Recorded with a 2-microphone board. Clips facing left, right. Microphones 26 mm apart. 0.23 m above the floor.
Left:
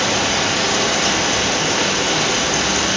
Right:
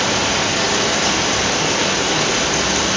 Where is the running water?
10° left (ahead or behind), 1.7 m.